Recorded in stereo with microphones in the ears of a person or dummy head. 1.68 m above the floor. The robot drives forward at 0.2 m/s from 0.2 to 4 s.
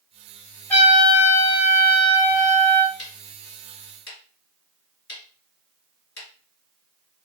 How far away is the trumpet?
About 1.1 m.